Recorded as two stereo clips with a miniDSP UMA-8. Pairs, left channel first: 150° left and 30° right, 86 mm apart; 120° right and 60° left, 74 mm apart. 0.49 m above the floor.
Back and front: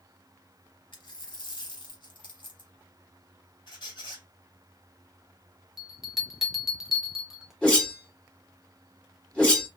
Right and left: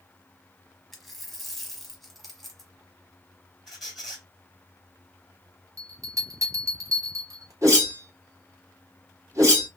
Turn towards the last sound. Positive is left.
turn(degrees=75)